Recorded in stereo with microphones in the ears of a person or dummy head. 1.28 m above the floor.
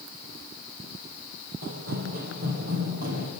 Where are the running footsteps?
45° right (ahead or behind), 1.8 m.